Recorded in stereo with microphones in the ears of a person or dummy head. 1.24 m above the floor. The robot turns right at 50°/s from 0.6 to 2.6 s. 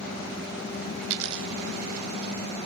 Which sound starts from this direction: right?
A dropped coin, at 1.0 s.